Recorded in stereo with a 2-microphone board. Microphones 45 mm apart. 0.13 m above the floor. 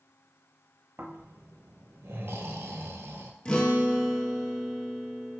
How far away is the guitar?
About 0.7 m.